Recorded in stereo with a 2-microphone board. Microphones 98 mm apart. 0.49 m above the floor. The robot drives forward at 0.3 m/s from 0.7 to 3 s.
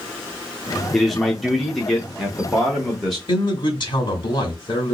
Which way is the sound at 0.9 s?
Centre (ahead or behind).